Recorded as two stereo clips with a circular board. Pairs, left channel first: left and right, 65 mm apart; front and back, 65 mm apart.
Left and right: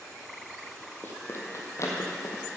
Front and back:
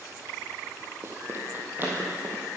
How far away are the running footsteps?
About 1.8 m.